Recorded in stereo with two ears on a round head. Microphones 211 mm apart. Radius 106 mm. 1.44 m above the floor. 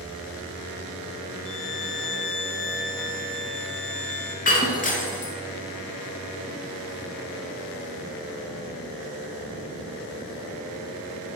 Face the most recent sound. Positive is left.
turn(degrees=35)  # may be behind; listen again after turning